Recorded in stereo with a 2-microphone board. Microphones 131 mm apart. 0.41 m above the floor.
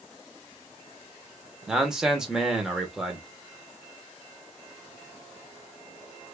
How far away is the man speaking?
About 0.9 m.